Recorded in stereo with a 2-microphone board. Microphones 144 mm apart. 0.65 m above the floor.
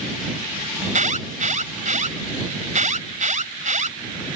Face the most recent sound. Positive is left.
turn(degrees=-60)  # may be behind; listen again after turning